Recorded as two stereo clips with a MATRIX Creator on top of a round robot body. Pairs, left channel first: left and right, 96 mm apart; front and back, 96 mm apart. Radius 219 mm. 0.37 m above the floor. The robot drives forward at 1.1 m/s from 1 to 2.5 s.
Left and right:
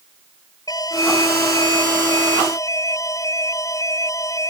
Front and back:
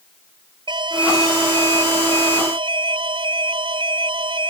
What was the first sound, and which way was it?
An alarm, 140° left.